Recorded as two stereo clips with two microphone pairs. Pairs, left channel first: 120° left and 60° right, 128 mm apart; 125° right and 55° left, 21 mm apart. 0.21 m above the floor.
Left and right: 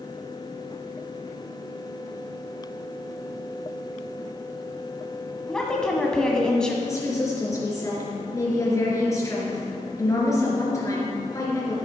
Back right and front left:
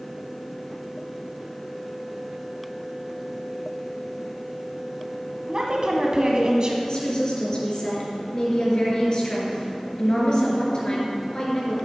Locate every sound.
5.5 s a woman speaking: 40° left, 1.2 m
6.8 s a woman speaking: 175° right, 3.5 m